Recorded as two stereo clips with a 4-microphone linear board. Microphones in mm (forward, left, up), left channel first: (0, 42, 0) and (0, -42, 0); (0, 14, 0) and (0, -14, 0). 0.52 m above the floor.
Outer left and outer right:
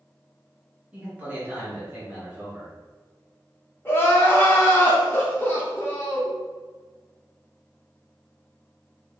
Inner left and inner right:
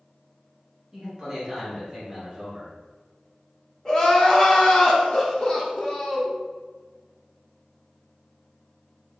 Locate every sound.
0.9 s a man speaking: 15° right (ahead or behind), 1.4 m; by 2.7 s 25° right (ahead or behind), 1.9 m
3.9 s crying: 25° left (ahead or behind), 0.7 m